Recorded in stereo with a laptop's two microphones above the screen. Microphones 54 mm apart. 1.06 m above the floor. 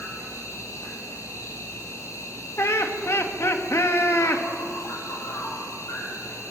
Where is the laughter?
55° left (ahead or behind), 1.7 m.